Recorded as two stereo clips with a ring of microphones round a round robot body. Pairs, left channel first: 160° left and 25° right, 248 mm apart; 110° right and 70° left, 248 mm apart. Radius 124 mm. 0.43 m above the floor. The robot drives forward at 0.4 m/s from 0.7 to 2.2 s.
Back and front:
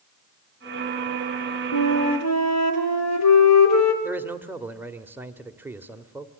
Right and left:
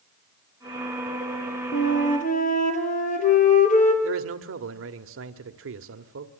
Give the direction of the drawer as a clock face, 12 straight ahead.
I don't hear a drawer.